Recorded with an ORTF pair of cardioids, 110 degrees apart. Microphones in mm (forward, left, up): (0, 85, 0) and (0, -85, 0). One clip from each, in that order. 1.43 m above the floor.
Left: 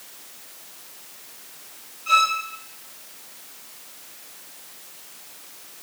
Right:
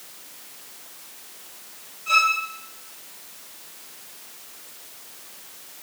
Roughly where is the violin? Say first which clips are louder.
Even; ahead.